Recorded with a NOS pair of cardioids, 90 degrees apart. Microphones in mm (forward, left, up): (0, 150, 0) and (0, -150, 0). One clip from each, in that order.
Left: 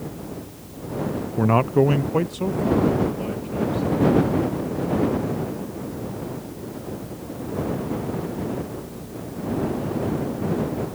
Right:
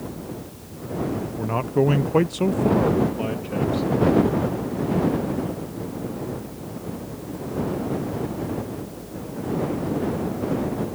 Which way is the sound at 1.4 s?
50° left.